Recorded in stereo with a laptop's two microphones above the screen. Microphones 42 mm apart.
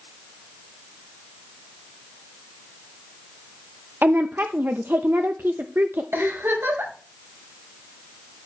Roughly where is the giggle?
Right.